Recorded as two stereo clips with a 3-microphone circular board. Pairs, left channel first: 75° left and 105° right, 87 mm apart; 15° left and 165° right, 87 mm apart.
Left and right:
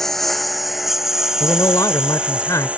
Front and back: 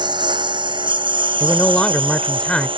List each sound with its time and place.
0.0 s a lawn mower: 160° left; by 2.8 s straight behind
1.4 s a man speaking: 85° left